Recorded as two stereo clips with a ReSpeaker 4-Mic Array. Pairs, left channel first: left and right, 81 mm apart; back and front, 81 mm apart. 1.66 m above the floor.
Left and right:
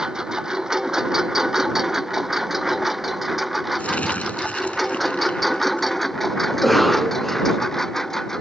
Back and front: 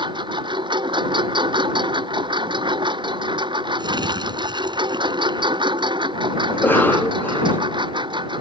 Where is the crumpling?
20° left.